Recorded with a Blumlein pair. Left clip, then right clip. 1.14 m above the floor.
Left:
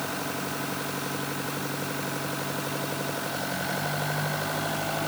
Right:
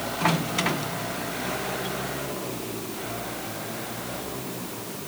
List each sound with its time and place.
Only background noise.